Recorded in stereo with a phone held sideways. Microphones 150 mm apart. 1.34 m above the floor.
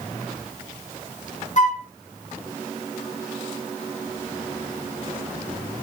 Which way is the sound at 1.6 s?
55° left (ahead or behind).